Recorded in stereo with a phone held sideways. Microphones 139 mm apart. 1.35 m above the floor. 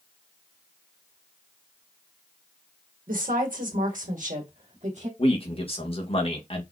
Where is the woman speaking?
80° right, 1.6 m; by 5.1 s 60° right (ahead or behind), 1.8 m.